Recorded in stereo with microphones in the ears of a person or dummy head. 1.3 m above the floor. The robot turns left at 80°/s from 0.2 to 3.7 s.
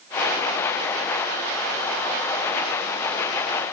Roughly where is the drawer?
No drawer in this recording.